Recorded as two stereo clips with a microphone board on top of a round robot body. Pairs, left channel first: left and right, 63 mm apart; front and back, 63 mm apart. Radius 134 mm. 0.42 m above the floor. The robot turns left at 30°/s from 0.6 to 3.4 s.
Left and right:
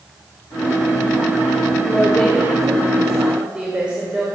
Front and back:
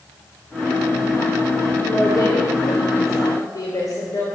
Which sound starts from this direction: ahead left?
A woman speaking, at 1.8 s.